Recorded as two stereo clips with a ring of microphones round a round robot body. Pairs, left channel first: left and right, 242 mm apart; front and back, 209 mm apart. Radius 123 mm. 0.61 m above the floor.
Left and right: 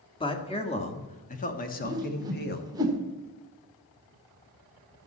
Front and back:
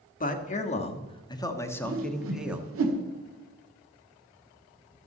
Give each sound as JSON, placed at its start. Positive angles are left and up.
{"t": 0.2, "sound": "a man speaking", "azimuth_deg": 25, "distance_m": 1.6}
{"t": 1.8, "sound": "a whoosh", "azimuth_deg": -165, "distance_m": 1.7}